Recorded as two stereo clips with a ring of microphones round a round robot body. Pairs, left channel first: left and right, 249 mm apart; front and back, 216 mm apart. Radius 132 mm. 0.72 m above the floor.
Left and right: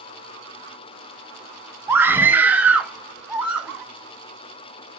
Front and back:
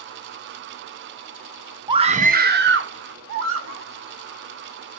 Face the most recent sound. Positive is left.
turn(degrees=-175)